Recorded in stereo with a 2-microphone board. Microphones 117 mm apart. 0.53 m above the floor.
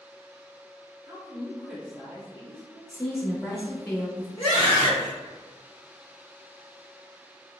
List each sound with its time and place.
1.1 s a woman speaking: 30° right (ahead or behind), 1.0 m; by 2.8 s 50° left (ahead or behind), 1.4 m
2.9 s a woman speaking: 15° left (ahead or behind), 0.7 m
4.4 s a scream: 45° left (ahead or behind), 1.8 m